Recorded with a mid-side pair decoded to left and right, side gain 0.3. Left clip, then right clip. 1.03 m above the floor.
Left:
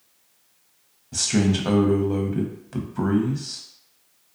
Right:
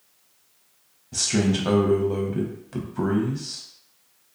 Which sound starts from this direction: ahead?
A man speaking, at 1.1 s.